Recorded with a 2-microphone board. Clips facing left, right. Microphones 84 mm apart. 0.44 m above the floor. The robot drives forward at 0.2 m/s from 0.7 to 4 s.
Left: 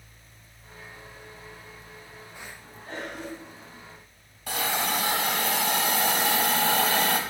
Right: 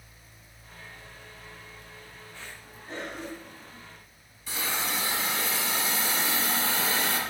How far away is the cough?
About 3.5 m.